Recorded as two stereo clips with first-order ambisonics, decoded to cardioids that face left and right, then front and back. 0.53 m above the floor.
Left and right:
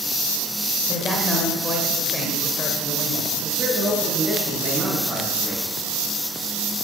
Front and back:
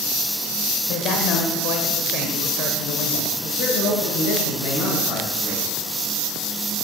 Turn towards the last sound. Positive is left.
turn(degrees=-15)